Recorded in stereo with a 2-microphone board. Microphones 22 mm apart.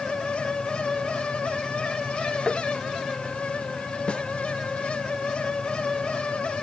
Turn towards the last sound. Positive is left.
turn(degrees=50)  # may be behind; listen again after turning